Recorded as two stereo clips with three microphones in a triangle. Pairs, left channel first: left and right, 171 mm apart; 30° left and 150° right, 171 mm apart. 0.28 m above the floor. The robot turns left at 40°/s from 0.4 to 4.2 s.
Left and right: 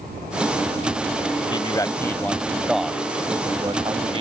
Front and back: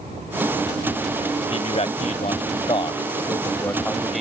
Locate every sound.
1.5 s a man speaking: 45° left; by 4.2 s 60° right